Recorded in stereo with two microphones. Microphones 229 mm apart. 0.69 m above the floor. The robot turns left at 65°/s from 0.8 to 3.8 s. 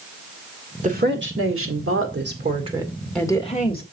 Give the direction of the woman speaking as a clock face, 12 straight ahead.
1 o'clock.